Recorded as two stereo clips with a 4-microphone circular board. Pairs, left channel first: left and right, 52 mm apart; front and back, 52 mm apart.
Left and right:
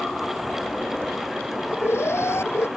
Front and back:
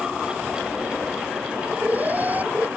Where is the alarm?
125° left.